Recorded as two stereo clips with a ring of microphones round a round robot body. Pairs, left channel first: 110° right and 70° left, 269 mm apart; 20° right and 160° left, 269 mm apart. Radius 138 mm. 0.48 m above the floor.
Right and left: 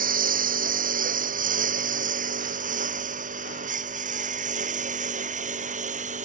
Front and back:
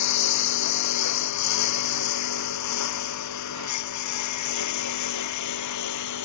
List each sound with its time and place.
0.0 s a lawn mower: 5° left